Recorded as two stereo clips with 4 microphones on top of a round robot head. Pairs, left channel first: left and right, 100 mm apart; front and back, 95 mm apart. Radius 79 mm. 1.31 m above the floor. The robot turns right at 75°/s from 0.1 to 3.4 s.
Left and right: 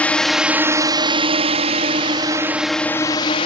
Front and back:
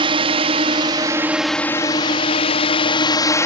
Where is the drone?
165° left; by 3.5 s 50° left.